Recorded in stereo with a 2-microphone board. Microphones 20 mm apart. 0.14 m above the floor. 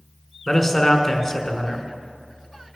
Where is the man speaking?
20° left (ahead or behind), 1.1 m.